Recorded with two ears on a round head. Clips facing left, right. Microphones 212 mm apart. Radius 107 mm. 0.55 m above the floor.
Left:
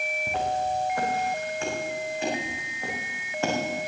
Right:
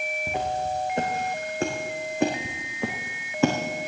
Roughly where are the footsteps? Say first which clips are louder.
Left 1 dB; centre.